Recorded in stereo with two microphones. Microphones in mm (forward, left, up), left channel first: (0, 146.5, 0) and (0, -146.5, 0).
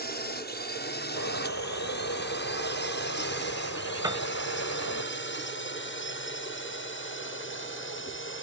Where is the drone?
35° left (ahead or behind); by 8.4 s 45° left (ahead or behind).